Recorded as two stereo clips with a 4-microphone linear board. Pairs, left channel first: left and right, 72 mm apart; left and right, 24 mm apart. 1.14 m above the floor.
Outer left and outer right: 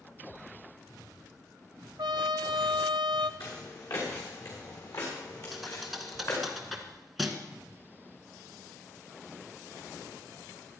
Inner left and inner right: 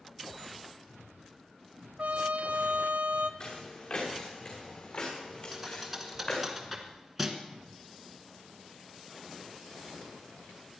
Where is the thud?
Centre (ahead or behind), 2.0 m.